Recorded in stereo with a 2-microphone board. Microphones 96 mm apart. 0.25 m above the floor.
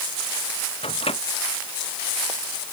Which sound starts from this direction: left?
A microwave, at 0.8 s.